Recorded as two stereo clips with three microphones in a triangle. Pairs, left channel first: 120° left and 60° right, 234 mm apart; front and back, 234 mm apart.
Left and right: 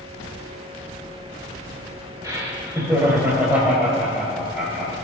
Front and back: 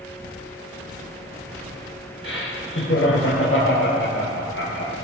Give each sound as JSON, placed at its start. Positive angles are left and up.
{"t": 2.2, "sound": "laughter", "azimuth_deg": 15, "distance_m": 4.0}